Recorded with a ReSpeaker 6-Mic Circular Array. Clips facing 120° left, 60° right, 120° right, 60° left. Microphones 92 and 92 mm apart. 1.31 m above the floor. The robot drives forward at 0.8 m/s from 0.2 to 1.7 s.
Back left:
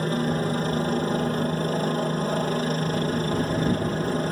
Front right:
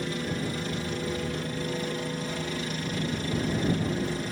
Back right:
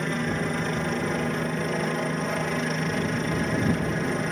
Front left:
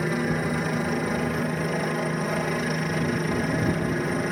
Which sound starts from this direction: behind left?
A helicopter, at 0.0 s.